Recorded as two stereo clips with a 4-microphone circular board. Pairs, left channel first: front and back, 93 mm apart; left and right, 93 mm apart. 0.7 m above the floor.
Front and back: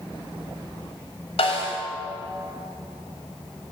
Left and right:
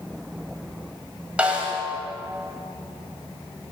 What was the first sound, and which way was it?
A snare drum, 10° right.